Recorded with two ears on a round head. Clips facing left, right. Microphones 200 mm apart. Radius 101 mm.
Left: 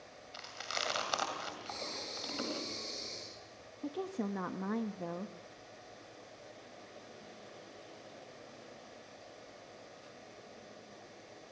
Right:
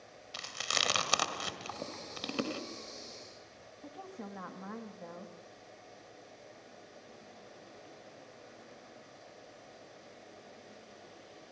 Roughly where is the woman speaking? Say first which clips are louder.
Left 9 dB; left.